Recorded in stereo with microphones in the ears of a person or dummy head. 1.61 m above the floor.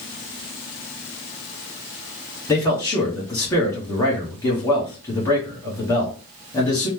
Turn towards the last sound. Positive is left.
turn(degrees=20)  # may be behind; listen again after turning